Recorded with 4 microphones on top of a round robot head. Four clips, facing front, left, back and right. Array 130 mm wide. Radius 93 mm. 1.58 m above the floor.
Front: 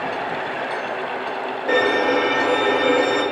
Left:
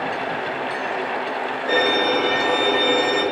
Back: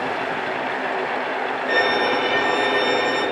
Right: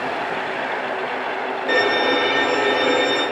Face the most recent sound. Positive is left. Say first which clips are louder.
# right 1 dB, front 3 dB
turn(degrees=-20)